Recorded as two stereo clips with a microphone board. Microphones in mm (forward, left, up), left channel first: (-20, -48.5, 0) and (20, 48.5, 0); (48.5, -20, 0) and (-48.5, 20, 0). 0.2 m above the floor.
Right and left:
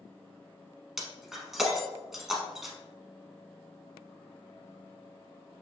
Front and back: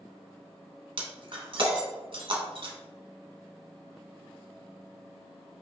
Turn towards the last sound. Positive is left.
turn(degrees=155)